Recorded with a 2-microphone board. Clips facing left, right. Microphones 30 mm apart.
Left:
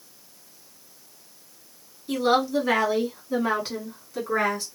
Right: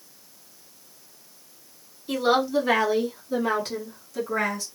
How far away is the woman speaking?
About 1.3 m.